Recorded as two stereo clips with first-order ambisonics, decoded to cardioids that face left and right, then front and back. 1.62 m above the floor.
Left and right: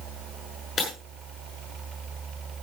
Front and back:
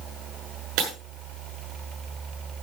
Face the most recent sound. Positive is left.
turn(degrees=150)